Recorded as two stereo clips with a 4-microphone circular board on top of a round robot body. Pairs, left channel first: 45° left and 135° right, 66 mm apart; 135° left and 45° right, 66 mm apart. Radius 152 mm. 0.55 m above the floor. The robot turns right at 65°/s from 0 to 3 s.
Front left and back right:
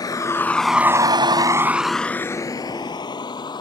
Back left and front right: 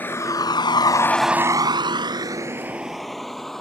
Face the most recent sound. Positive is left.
turn(degrees=50)